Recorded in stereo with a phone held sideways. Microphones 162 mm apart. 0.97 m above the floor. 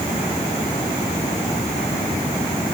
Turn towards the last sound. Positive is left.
No sound to turn to.